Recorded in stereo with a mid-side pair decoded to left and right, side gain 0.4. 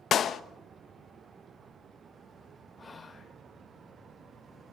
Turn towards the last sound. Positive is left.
turn(degrees=40)